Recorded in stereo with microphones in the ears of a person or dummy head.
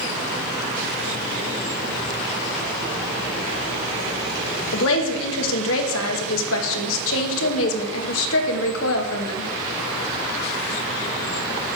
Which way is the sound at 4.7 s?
80° left.